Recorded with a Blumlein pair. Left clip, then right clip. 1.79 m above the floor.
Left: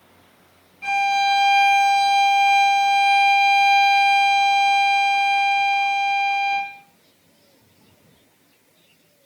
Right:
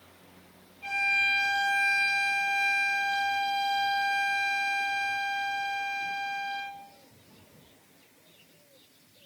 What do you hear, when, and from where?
0.8 s a violin: 55° left, 2.5 m